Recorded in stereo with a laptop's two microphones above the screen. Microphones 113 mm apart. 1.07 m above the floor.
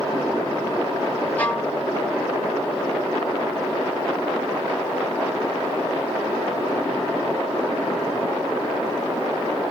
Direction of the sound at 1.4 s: 15° left (ahead or behind).